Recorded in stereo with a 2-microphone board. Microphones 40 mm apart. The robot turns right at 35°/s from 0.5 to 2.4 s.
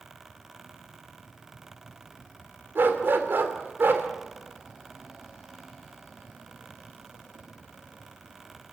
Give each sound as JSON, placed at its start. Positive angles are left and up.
{"t": 2.8, "sound": "a dog barking", "side_deg": -60, "distance_m": 2.5}